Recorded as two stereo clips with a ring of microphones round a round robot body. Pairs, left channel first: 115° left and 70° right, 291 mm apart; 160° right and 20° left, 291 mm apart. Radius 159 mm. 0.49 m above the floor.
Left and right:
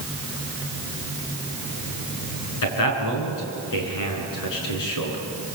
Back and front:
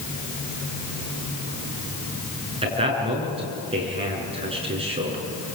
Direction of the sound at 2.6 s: 95° left.